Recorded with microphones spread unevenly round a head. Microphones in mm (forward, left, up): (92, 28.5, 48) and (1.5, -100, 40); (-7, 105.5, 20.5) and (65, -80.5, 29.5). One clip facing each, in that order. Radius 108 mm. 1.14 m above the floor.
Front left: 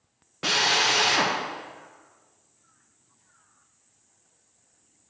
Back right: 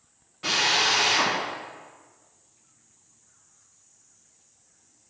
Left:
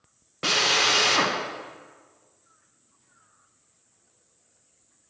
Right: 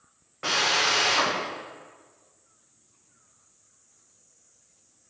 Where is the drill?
75° left, 1.0 m.